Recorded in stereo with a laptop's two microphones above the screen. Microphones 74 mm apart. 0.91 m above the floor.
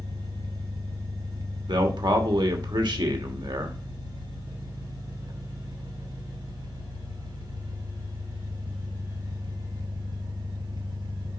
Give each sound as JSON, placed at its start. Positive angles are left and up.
{"t": 0.0, "sound": "an engine running", "side_deg": -75, "distance_m": 2.0}
{"t": 1.7, "sound": "a man speaking", "side_deg": -80, "distance_m": 2.5}